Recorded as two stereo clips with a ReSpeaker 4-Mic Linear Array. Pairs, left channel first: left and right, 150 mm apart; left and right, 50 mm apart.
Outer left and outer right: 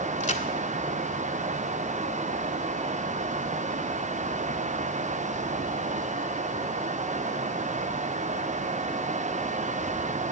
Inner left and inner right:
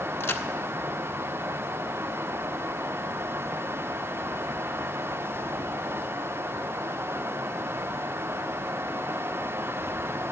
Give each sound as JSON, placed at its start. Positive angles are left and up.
{"t": 0.2, "sound": "a crack", "side_deg": 55, "distance_m": 0.7}